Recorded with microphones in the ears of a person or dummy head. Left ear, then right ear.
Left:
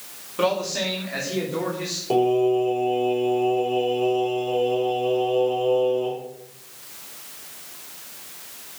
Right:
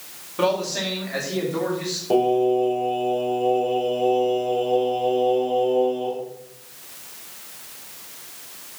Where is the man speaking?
Centre (ahead or behind), 2.5 m; by 2.0 s 5° right (ahead or behind), 3.5 m.